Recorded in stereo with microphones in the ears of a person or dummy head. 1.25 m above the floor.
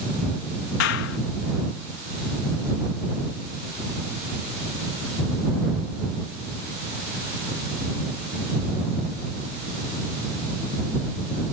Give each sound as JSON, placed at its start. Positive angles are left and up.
{"t": 0.8, "sound": "a clap", "side_deg": 70}